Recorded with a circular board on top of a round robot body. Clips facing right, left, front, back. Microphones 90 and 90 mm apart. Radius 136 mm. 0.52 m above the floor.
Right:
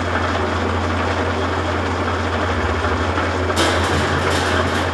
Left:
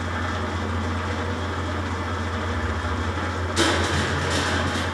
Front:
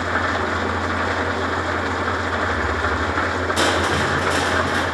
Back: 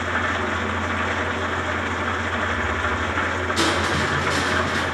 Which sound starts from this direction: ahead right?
Crushing, at 3.6 s.